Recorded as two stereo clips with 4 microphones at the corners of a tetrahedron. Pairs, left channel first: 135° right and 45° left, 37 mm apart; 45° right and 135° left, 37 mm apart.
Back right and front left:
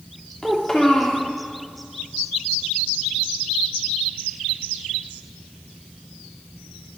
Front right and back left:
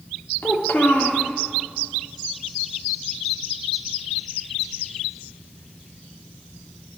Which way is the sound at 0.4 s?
65° right.